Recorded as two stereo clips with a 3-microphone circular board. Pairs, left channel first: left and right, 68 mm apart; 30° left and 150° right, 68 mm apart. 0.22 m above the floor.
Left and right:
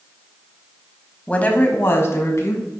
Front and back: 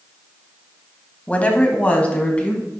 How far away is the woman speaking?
About 1.1 m.